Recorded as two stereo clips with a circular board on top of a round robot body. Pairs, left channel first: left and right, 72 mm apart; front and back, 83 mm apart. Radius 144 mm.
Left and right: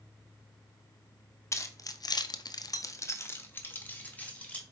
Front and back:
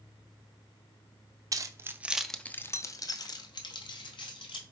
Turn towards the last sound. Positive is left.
turn(degrees=15)